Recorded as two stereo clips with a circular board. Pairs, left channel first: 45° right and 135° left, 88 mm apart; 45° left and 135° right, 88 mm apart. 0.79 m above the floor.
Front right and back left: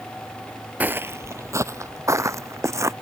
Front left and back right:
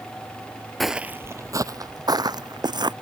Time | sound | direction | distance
0.8 | footsteps | 130° left | ?